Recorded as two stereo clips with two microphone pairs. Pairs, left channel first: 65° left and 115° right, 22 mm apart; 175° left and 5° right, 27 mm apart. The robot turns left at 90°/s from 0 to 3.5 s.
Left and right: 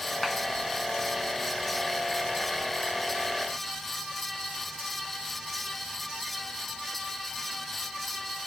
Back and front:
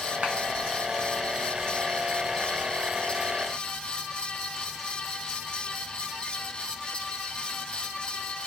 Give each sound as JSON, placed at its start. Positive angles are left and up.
{"t": 0.2, "sound": "a clap", "azimuth_deg": -10, "distance_m": 2.0}